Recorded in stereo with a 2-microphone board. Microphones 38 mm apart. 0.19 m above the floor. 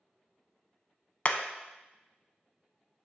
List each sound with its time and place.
1.2 s hammering: 35° left (ahead or behind), 0.6 m